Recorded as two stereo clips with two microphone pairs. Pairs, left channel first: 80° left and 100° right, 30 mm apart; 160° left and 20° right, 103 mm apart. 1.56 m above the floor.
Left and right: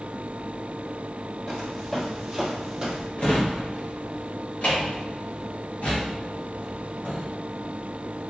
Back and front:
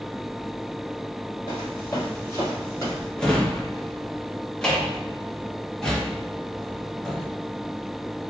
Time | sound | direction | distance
1.5 | footsteps | 125° left | 1.8 m
3.2 | a drawer | 75° left | 1.0 m